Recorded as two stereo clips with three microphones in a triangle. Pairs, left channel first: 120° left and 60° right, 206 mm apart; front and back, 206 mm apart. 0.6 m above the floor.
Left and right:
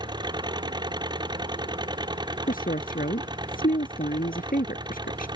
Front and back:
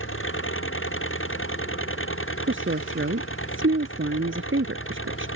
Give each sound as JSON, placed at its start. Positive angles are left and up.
{"t": 0.0, "sound": "an engine running", "azimuth_deg": 10}
{"t": 2.5, "sound": "a woman speaking", "azimuth_deg": 165}